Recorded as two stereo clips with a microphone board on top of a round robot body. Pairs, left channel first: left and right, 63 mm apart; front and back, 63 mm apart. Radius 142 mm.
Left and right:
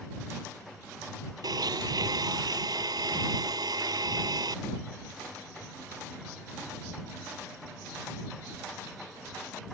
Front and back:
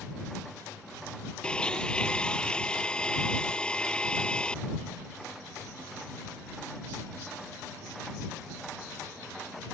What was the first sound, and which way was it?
A blender, 75° right.